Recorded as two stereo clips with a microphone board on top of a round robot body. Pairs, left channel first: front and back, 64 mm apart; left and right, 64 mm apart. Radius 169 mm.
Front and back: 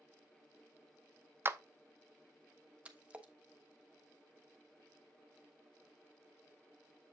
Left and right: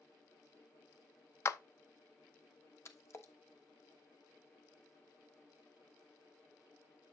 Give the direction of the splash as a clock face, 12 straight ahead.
8 o'clock.